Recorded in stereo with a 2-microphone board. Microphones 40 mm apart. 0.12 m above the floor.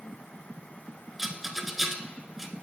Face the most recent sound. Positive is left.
turn(degrees=-5)  # may be behind; listen again after turning